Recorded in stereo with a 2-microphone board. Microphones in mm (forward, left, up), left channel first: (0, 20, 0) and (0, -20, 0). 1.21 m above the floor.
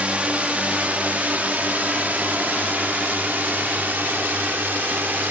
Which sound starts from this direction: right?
A drone, at 0.0 s.